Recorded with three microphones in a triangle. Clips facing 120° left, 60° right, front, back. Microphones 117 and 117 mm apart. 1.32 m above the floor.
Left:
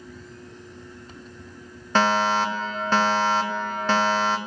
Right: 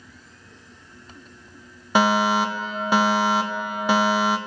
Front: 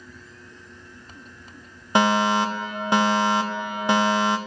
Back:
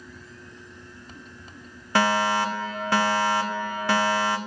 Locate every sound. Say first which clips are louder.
1.9 s a fire alarm: right 2 dB, front 3 dB; 5° right, 0.8 m